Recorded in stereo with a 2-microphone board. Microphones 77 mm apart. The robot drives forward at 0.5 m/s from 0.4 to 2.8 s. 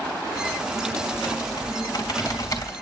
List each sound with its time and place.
1.1 s typing on a keyboard: 60° left (ahead or behind), 2 m; by 2.7 s 45° left (ahead or behind), 2.5 m